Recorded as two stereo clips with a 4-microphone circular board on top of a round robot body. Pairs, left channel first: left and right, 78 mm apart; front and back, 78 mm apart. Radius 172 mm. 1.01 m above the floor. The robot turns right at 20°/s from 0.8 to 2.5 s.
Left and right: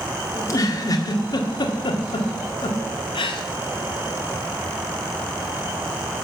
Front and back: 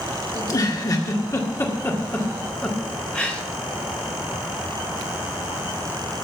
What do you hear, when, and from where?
0.3 s a giggle: 45° left, 1.8 m; by 3.4 s 75° left, 1.8 m